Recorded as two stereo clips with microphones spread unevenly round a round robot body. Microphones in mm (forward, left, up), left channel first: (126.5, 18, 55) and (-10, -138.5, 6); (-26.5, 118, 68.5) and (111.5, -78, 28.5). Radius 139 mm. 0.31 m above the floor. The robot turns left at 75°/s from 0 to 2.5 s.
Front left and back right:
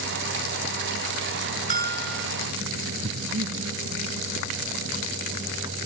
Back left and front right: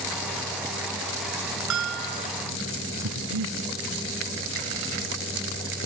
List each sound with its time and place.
1.7 s a bell: 80° right; by 2.3 s 130° right
3.0 s breathing: 85° right